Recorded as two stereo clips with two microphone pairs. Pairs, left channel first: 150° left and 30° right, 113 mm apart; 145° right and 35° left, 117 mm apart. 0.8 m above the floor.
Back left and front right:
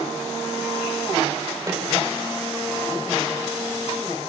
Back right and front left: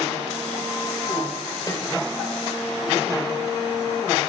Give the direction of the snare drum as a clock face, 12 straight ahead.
3 o'clock.